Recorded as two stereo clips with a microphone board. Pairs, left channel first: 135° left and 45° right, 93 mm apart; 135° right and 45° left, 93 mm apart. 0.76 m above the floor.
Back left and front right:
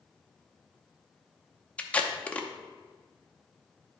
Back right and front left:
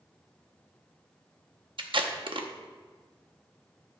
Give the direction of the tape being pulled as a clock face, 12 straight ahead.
10 o'clock.